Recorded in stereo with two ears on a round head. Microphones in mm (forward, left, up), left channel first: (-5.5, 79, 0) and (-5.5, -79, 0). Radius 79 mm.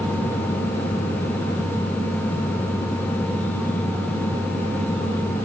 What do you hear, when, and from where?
Only background noise.